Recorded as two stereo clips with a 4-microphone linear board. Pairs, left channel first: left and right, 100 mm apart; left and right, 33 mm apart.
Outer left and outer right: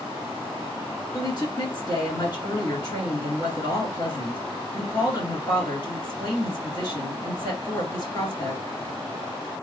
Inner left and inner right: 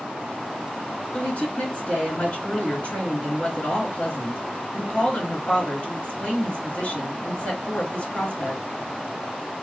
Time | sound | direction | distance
1.1 | a woman speaking | 45° left (ahead or behind) | 2.5 m